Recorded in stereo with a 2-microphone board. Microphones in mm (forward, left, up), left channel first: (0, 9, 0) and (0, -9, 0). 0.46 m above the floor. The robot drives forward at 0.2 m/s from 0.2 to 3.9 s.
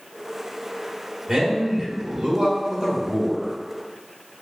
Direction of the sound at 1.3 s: 45° right (ahead or behind).